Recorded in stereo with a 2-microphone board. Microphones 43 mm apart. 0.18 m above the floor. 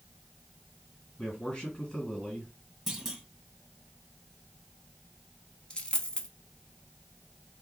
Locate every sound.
1.2 s a man speaking: 15° left (ahead or behind), 1.9 m
2.9 s a clunk: 10° right (ahead or behind), 1.3 m
5.7 s a dropped coin: 25° left (ahead or behind), 0.6 m